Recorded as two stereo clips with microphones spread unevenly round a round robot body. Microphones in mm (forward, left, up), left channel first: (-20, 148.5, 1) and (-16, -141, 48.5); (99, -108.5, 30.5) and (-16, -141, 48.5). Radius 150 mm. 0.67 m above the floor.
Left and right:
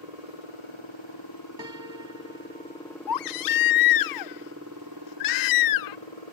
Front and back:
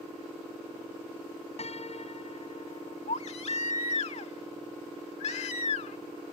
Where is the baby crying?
70° left.